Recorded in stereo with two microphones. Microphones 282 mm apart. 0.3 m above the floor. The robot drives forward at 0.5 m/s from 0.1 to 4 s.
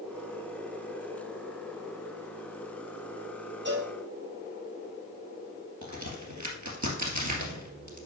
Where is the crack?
75° right (ahead or behind), 2 m.